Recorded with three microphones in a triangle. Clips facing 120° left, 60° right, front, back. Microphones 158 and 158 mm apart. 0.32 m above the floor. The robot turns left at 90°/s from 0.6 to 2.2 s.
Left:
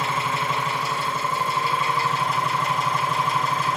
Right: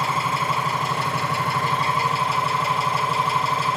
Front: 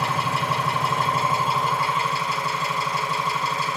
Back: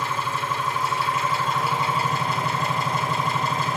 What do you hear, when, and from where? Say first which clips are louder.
0.0 s an engine running: right 1 dB, front 2 dB; straight ahead, 7 m; by 3.8 s 145° right, 7 m